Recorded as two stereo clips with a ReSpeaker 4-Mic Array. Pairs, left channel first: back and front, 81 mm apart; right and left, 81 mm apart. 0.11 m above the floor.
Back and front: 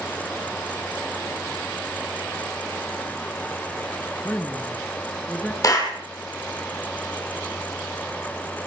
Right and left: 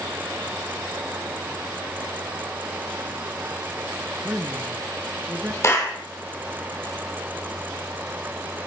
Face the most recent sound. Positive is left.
turn(degrees=-140)